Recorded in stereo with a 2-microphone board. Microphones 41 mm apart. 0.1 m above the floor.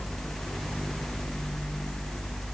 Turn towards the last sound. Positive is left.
No sound to turn to.